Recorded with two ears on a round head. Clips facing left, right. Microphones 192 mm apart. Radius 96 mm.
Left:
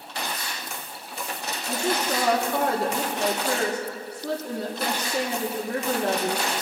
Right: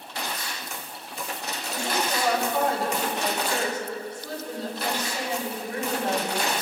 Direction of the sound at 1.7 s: 50° left (ahead or behind).